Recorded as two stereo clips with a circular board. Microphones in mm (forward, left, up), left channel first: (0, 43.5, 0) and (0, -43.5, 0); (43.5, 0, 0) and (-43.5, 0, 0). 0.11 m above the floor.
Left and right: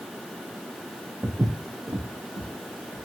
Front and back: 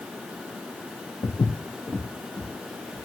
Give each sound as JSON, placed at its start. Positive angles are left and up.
{"t": 1.2, "sound": "footsteps", "azimuth_deg": -25, "distance_m": 0.6}